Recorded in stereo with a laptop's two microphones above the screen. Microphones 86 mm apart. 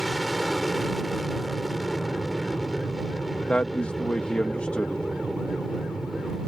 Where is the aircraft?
Centre (ahead or behind).